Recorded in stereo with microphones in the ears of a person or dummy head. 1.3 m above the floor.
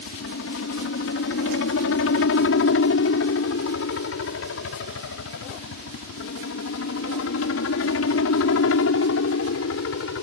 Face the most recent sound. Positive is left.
turn(degrees=70)  # may be behind; listen again after turning